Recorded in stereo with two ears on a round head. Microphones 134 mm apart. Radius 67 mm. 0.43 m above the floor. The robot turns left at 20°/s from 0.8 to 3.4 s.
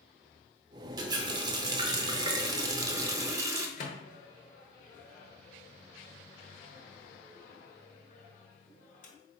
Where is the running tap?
25° right (ahead or behind), 0.5 m; by 3.7 s 20° right (ahead or behind), 0.5 m.